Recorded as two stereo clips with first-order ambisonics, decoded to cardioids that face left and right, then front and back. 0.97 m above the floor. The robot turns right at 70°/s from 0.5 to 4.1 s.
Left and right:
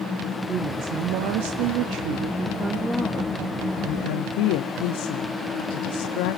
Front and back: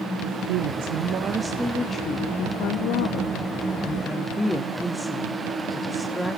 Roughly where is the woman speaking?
Behind.